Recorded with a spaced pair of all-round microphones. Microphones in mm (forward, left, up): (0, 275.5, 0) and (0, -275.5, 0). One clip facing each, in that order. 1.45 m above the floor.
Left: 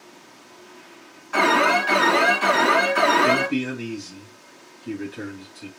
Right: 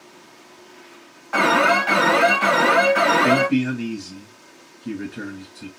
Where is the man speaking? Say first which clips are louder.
Right 4 dB; 75° right (ahead or behind), 2 m.